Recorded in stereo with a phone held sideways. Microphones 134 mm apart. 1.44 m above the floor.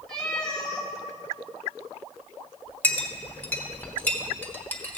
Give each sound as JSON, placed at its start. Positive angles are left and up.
{"t": 0.1, "sound": "a cat meowing", "side_deg": 5, "distance_m": 1.9}
{"t": 2.8, "sound": "a clink", "side_deg": 10, "distance_m": 1.0}